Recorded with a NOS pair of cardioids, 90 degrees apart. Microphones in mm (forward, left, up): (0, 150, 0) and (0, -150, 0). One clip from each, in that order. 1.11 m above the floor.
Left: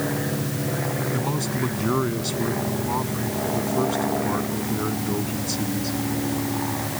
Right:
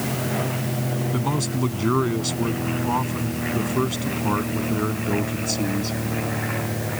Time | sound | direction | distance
1.1 | a man speaking | 45° right | ?